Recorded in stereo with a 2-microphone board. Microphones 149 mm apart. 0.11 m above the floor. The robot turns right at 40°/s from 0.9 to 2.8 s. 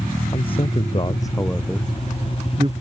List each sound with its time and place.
0.3 s a man speaking: 35° left (ahead or behind); by 2.7 s 35° right (ahead or behind)